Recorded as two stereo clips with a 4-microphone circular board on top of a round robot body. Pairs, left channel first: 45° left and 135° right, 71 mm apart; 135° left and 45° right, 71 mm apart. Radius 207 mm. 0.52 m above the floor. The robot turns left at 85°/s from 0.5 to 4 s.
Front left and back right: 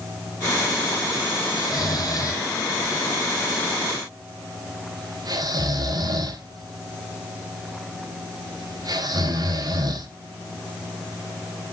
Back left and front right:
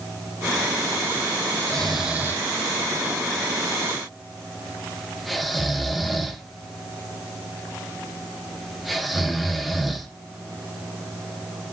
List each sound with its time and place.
1.6 s snoring: 70° left, 1.4 m; by 10.1 s 135° right, 1.4 m